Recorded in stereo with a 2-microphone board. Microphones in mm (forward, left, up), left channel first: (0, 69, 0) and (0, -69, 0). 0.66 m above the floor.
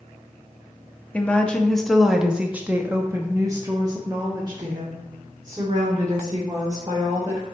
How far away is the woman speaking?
About 1.1 m.